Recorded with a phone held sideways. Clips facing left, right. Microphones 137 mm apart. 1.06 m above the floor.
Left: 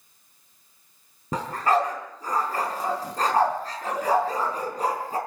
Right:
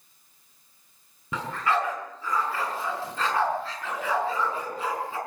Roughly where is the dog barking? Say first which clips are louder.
Left 4 dB; left.